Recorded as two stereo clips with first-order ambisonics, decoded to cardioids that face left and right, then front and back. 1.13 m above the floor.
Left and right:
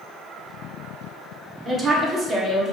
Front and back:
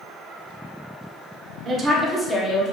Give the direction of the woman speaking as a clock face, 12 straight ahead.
5 o'clock.